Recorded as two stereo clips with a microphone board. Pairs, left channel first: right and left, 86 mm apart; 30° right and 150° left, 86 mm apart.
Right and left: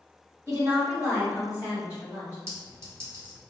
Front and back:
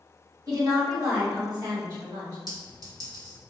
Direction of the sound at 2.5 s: 135° left.